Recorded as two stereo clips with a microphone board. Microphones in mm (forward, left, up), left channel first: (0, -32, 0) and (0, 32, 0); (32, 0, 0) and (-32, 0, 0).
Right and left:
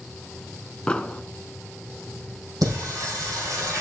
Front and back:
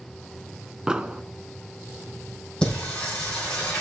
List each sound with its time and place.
0.9 s an explosion: 130° right, 0.5 m
2.6 s singing: 75° left, 5 m